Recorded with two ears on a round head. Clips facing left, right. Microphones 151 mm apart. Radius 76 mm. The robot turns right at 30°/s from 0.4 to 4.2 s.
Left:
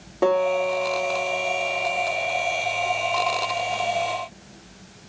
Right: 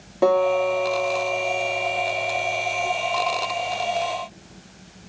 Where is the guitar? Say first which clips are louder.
Right 2 dB; straight behind, 1.9 m; by 2.9 s 105° right, 1.9 m.